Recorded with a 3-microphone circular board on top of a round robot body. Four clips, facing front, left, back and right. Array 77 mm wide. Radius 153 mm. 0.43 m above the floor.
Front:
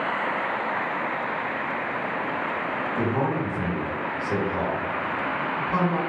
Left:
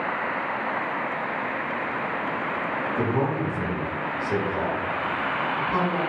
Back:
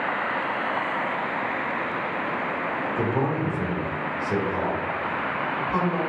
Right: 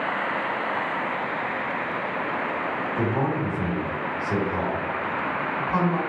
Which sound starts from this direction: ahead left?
A man speaking, at 3.0 s.